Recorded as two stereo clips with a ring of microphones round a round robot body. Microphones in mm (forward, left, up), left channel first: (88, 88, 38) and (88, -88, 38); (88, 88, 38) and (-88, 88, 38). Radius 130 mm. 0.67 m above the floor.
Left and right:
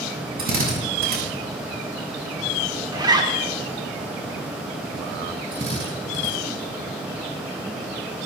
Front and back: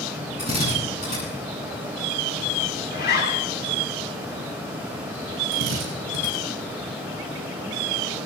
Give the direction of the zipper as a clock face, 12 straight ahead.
1 o'clock.